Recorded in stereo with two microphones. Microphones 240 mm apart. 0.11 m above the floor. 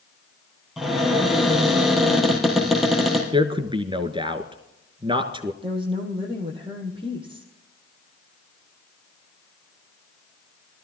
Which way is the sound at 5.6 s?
20° right (ahead or behind).